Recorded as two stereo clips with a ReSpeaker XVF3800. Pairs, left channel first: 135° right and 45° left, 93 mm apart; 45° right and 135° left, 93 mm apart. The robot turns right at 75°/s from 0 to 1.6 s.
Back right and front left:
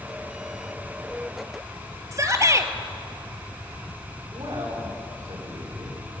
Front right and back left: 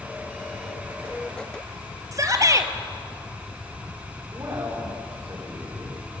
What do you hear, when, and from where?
2.1 s a shout: 90° left, 1.9 m
4.3 s a man speaking: 75° left, 9 m